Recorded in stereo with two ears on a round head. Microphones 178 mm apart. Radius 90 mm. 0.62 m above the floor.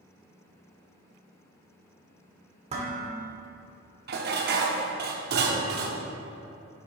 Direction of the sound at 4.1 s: 55° right (ahead or behind).